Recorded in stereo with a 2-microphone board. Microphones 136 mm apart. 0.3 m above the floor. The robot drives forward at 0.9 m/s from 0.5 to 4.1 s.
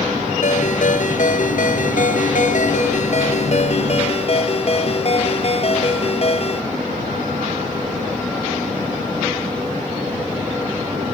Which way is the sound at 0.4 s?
65° left (ahead or behind).